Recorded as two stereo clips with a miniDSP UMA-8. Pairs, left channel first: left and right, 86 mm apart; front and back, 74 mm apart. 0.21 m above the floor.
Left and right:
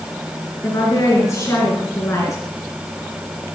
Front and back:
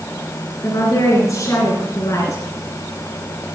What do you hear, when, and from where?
0.6 s a woman speaking: 35° left, 3 m